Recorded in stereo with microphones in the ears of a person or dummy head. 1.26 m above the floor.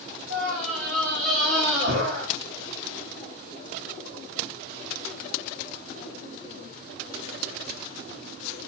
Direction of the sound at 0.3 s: 60° right (ahead or behind).